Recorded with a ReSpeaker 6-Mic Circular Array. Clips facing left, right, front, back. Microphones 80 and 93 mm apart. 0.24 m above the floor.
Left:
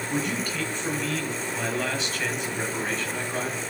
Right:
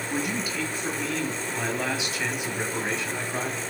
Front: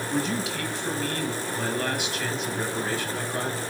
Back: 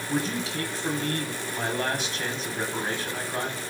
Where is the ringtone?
I don't hear a ringtone.